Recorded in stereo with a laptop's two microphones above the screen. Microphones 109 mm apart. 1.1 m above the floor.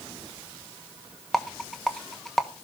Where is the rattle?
5° left (ahead or behind), 1.1 m.